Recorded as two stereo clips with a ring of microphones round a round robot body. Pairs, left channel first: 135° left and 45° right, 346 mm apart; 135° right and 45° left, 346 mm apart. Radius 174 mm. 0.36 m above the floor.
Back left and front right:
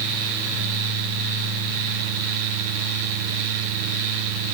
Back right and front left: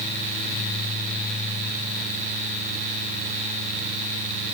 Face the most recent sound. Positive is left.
No sound to turn to.